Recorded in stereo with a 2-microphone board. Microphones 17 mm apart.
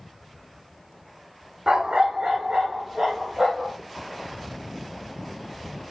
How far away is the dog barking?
About 1.0 m.